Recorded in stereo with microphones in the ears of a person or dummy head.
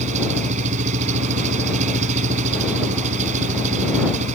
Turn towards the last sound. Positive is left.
turn(degrees=-40)  # may be behind; listen again after turning